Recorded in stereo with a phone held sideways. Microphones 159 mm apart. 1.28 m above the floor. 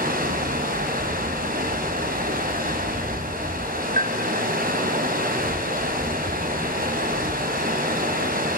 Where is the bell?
65° right (ahead or behind), 1.3 m.